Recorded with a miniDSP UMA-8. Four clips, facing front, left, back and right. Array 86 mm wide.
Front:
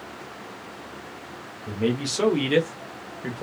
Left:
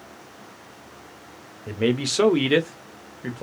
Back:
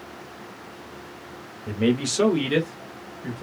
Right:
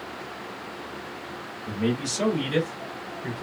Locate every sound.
1.7 s a man speaking: 115° left, 0.8 m; by 3.4 s 50° left, 1.0 m